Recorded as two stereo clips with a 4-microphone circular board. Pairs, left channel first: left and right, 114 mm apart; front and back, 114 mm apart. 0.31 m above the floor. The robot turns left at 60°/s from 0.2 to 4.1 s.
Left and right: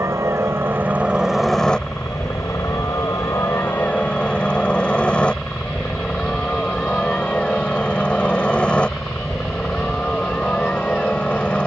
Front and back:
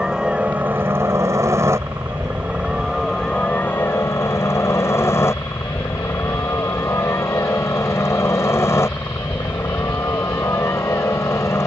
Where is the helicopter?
105° right; by 11.7 s 25° left.